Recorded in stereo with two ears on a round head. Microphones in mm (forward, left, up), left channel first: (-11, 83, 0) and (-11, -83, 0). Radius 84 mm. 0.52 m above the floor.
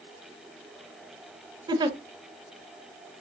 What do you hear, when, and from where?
1.7 s a giggle: 25° right (ahead or behind), 0.6 m